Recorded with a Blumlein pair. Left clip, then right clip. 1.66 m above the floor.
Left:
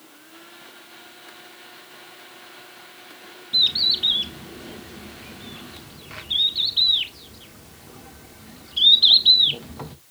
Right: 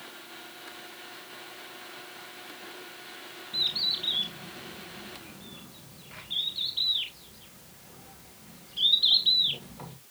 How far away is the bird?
About 1.1 m.